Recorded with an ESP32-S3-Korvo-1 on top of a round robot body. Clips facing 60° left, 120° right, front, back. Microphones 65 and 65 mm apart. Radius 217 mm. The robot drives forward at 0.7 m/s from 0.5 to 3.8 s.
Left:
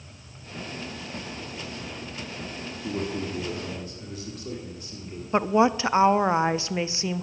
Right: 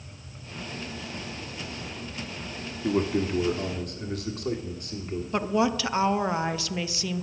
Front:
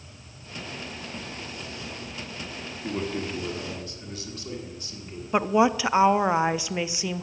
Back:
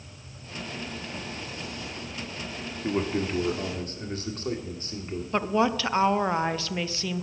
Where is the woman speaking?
55° left, 0.8 m.